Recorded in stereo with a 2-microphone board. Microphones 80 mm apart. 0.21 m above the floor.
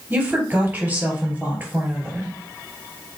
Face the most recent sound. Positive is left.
turn(degrees=-20)  # may be behind; listen again after turning